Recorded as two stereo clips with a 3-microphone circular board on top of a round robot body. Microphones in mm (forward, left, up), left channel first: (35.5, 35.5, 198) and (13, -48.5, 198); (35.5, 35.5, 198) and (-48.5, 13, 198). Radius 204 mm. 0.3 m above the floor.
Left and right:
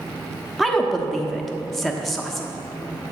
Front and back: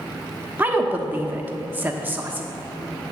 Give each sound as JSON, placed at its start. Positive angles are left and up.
{"t": 0.6, "sound": "a woman speaking", "azimuth_deg": 165, "distance_m": 1.2}